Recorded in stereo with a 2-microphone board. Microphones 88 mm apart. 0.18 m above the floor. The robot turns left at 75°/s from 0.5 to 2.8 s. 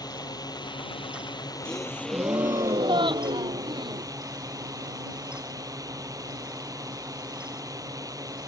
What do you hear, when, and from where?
0.0 s a drone: 125° left; by 8.5 s 45° right
1.6 s a gasp: 15° left; by 4.1 s 75° right